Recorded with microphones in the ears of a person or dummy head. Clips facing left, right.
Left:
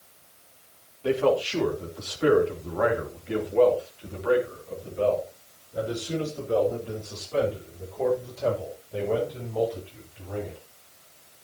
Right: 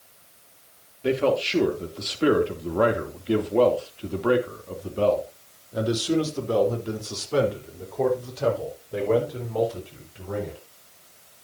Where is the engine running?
I don't hear an engine running.